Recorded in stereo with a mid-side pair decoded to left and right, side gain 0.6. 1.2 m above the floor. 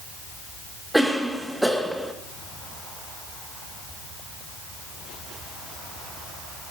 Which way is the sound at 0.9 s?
5° right.